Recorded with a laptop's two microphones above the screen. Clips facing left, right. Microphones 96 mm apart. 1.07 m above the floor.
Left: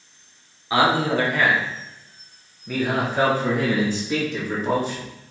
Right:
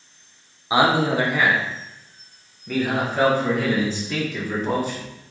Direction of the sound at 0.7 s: 20° right (ahead or behind).